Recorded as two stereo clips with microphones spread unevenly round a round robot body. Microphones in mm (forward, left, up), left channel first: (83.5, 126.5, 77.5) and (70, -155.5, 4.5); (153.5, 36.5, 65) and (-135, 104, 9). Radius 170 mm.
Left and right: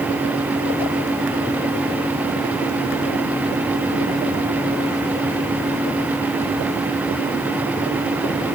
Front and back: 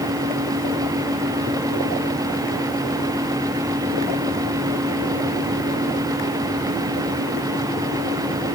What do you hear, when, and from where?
Only background noise.